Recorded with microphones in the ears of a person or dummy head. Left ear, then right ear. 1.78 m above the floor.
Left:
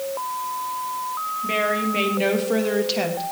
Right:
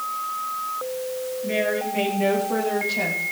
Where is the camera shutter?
I don't hear a camera shutter.